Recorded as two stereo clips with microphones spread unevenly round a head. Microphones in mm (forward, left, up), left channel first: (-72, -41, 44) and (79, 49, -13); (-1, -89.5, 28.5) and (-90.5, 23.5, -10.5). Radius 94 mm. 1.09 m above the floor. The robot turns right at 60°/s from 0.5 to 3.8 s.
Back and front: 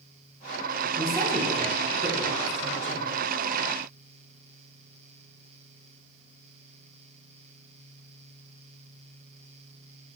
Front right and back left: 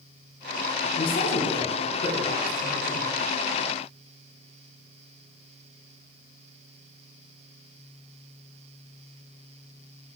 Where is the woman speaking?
80° right, 3.5 m; by 3.0 s 45° left, 3.5 m.